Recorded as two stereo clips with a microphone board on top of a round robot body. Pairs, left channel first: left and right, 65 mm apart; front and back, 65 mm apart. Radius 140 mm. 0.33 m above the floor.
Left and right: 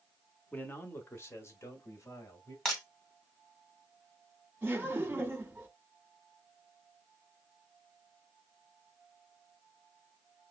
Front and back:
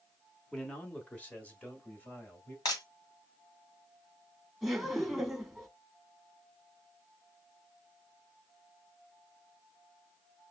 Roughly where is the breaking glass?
Ahead.